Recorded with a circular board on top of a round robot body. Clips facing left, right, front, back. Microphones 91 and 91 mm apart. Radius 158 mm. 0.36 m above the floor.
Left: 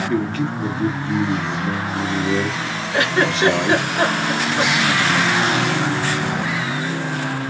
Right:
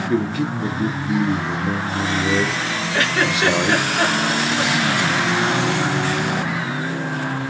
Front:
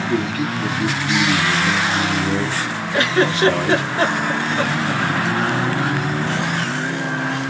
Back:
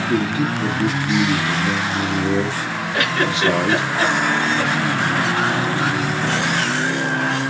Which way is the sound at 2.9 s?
25° left.